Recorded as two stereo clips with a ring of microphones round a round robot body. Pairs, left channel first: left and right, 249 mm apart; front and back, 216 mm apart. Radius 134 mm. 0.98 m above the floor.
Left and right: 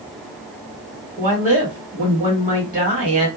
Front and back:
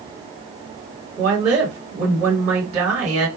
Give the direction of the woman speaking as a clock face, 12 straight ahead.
6 o'clock.